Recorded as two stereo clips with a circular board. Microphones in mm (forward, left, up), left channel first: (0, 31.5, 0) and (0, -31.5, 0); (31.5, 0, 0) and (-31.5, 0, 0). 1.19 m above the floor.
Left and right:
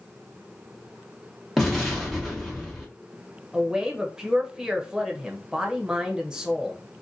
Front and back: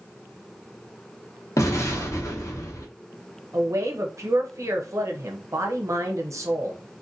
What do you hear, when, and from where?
1.6 s an explosion: 5° left, 0.9 m
3.5 s a woman speaking: 165° right, 0.6 m